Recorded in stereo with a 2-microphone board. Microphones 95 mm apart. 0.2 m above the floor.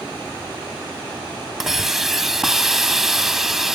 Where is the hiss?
5° right (ahead or behind), 0.5 m.